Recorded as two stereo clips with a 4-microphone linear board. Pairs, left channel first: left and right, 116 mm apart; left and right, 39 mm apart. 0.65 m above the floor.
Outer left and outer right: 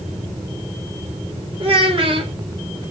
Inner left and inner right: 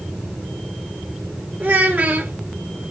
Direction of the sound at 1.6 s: 50° right (ahead or behind).